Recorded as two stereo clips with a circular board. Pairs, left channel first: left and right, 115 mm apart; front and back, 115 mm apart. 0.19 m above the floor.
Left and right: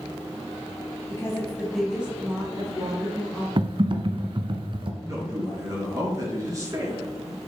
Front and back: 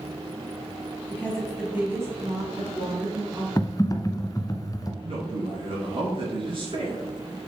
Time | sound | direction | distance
1.1 | a woman speaking | 55° left | 1.6 m
3.6 | typing on a keyboard | 55° right | 0.7 m
5.0 | a man speaking | 145° right | 3.5 m